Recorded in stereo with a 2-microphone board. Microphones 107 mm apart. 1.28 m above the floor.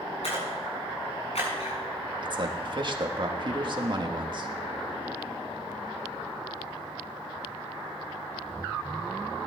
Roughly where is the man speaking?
Right.